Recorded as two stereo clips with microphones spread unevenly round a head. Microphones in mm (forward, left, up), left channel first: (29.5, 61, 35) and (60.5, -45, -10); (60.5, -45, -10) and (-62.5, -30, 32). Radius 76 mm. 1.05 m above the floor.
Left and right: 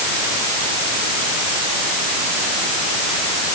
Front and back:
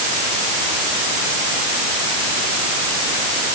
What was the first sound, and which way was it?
Only background noise.